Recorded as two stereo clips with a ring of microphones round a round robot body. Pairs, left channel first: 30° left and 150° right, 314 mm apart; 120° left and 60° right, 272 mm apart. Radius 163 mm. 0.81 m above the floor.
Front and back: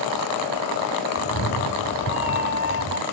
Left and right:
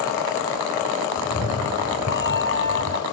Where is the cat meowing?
70° left; by 3.0 s 80° left.